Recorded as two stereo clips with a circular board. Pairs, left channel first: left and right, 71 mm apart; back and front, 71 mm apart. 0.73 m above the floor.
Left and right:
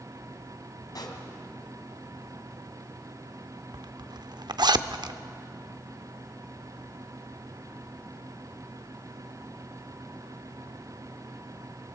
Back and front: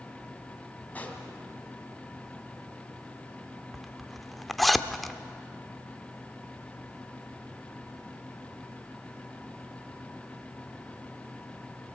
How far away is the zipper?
About 0.7 m.